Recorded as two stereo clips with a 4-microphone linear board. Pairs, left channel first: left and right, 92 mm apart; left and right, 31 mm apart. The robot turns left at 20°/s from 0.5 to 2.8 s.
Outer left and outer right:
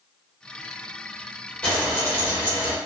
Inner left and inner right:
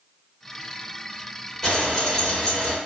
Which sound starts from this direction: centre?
Frying, at 1.6 s.